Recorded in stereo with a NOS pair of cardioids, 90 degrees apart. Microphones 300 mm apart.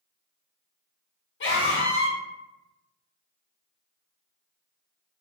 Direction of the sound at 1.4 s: 40° left.